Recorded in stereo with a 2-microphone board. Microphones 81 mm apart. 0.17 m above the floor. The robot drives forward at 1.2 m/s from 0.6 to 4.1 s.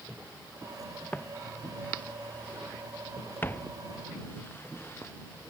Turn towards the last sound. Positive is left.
turn(degrees=35)  # may be behind; listen again after turning